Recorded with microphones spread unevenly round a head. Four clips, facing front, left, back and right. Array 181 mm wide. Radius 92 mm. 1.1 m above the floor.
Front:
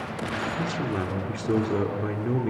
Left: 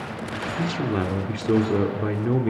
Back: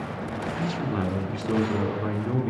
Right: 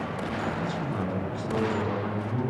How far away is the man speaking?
About 2.5 m.